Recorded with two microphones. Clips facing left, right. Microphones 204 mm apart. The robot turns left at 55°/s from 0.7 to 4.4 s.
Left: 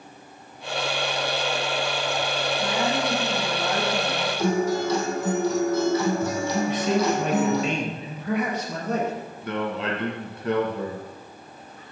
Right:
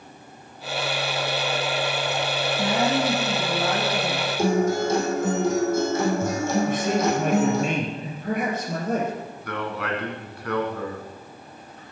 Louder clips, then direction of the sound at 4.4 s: Right 2 dB; 50° right (ahead or behind).